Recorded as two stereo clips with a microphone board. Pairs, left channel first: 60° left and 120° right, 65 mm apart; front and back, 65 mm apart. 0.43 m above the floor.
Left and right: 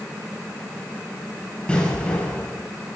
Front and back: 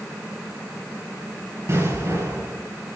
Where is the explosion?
130° left, 7 m.